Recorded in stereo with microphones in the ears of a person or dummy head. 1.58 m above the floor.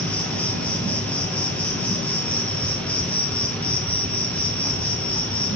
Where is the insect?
5° left (ahead or behind), 1.1 m.